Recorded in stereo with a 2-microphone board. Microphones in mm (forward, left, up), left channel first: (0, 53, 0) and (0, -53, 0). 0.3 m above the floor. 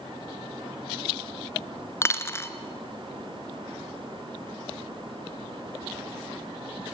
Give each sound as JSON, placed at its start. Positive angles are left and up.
{"t": 2.0, "sound": "a dropped coin", "side_deg": 25, "distance_m": 0.9}